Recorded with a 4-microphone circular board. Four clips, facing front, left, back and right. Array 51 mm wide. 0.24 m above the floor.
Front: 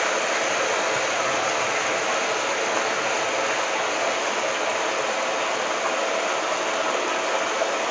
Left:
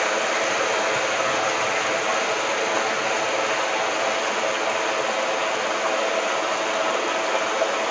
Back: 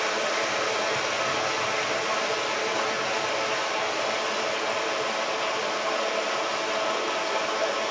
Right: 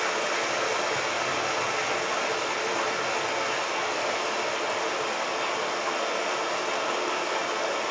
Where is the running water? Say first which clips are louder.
Left 5 dB, front 3 dB; 50° left, 4 m.